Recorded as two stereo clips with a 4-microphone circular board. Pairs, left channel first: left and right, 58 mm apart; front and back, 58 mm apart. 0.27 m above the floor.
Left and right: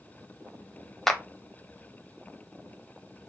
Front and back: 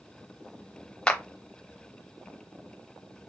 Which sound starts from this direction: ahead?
A clap, at 1.1 s.